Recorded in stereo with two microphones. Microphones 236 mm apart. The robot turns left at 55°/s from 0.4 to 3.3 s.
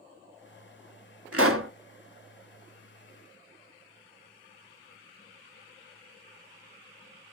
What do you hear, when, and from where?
1.3 s a pop: 85° right, 0.7 m; by 1.7 s 65° right (ahead or behind), 0.7 m